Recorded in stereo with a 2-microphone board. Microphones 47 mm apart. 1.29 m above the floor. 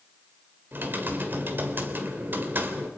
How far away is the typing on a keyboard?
About 2 m.